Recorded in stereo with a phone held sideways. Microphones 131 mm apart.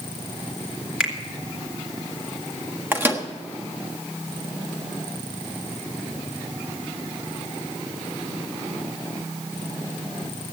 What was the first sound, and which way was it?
A finger snap, 10° right (ahead or behind).